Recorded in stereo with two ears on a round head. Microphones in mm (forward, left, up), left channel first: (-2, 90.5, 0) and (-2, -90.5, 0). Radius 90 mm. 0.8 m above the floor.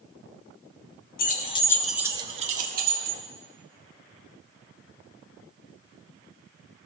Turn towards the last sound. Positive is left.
turn(degrees=-50)  # may be behind; listen again after turning